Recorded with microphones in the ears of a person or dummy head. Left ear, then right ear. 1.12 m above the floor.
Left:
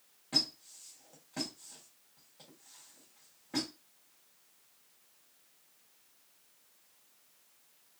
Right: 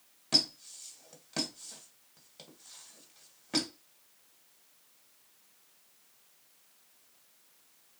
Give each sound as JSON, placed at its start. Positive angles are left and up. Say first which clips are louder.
{"t": 0.3, "sound": "a squeak", "louder": "right 4 dB", "side_deg": -65, "distance_m": 1.1}